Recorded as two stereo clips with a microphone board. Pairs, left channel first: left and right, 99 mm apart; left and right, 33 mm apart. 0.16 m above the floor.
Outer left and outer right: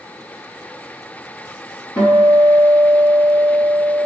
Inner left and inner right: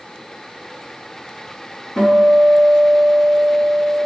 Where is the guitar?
15° left (ahead or behind), 1.9 m.